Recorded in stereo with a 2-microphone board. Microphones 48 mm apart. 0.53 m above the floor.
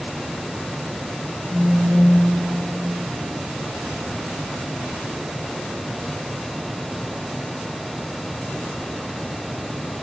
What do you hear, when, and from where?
1.5 s a phone buzzing: 35° right (ahead or behind), 2.5 m